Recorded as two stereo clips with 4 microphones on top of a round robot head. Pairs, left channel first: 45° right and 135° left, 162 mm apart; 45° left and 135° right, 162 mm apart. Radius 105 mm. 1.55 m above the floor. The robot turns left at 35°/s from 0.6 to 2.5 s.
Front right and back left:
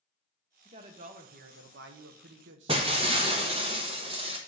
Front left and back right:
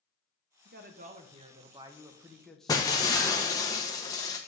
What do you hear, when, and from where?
0.7 s a man speaking: 165° right, 1.0 m; by 3.4 s 130° left, 1.0 m
2.7 s breaking glass: 100° left, 0.6 m